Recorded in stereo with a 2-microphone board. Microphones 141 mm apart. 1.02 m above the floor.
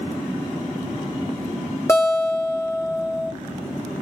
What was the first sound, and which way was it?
A guitar, 20° left (ahead or behind).